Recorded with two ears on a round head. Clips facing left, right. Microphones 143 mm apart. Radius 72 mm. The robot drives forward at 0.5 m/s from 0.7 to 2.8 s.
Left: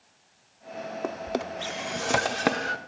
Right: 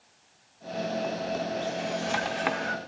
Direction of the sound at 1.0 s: 55° left (ahead or behind).